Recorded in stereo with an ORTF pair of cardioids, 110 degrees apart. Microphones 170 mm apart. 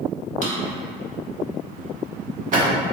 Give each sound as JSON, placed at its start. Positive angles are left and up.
{"t": 0.4, "sound": "a drawer", "azimuth_deg": -45, "distance_m": 1.1}